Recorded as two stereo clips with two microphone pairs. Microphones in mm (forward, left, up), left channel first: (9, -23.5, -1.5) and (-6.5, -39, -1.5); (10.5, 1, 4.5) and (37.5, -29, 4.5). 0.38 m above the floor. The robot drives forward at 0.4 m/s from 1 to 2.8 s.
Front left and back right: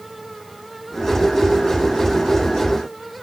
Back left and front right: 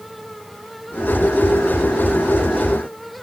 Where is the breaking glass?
No breaking glass in this recording.